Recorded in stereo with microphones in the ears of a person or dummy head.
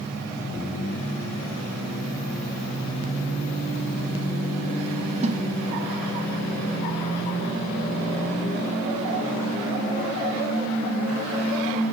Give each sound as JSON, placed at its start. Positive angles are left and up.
{"t": 5.2, "sound": "a snare drum", "side_deg": -40}